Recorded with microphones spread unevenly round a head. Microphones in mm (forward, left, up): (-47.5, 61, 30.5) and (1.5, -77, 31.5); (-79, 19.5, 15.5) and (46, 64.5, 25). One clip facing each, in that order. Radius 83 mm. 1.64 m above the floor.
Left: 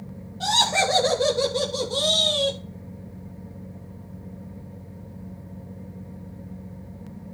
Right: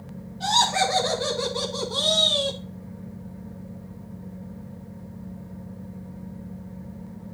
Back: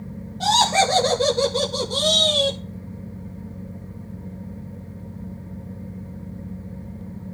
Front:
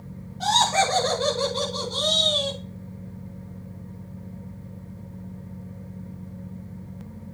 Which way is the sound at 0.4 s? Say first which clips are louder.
Even, back 3 dB; 140° left.